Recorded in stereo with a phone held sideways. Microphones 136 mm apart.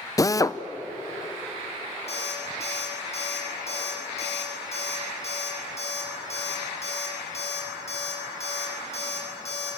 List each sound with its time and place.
0.2 s a drill: 25° left (ahead or behind), 0.6 m
2.1 s an alarm clock: 50° left (ahead or behind), 8 m